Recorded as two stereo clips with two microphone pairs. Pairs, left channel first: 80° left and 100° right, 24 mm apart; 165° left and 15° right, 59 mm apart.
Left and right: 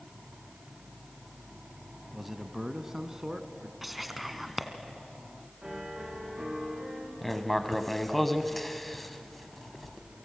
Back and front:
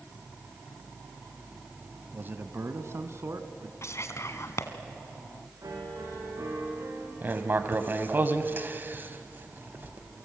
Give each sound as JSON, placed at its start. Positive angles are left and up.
{"t": 2.1, "sound": "a man speaking", "azimuth_deg": -15, "distance_m": 1.1}
{"t": 3.8, "sound": "whispering", "azimuth_deg": 175, "distance_m": 1.9}
{"t": 5.6, "sound": "a piano", "azimuth_deg": -40, "distance_m": 7.0}
{"t": 7.2, "sound": "writing", "azimuth_deg": 0, "distance_m": 1.3}